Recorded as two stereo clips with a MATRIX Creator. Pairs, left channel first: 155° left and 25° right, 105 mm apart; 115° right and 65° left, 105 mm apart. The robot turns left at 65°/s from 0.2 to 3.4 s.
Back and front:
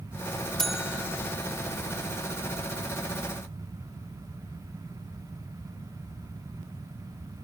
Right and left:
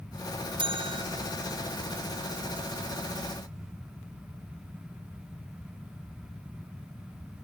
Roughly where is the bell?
Left.